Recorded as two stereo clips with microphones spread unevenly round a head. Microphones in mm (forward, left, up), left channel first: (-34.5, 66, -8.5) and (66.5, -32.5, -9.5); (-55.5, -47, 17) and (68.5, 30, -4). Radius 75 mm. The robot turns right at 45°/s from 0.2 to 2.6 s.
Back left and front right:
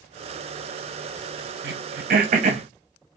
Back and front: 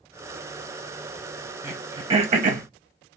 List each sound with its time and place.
1.6 s throat clearing: 45° right, 0.7 m; by 2.7 s straight ahead, 0.7 m